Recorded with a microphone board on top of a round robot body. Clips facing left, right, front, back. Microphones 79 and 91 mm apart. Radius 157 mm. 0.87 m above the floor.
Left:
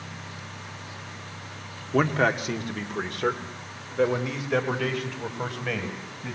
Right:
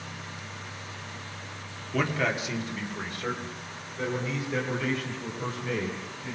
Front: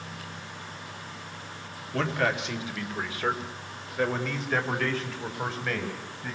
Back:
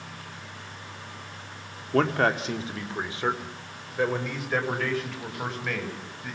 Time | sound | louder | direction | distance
1.9 | a man speaking | left 5 dB, back 4 dB | 140° left | 2.5 m